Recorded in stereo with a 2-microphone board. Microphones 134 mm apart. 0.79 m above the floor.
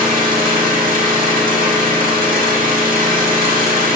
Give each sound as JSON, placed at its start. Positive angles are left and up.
{"t": 0.0, "sound": "an engine running", "side_deg": -80, "distance_m": 1.8}